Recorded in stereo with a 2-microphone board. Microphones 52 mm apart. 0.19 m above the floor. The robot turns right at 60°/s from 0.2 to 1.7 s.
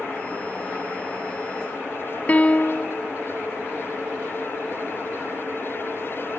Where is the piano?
30° left (ahead or behind), 0.8 m.